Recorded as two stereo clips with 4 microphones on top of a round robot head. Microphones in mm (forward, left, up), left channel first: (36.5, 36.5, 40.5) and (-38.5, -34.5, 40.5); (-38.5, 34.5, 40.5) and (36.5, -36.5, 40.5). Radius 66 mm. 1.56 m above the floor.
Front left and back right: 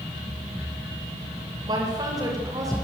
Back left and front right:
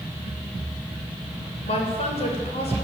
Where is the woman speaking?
170° left, 8 m; by 2.7 s 165° left, 8 m.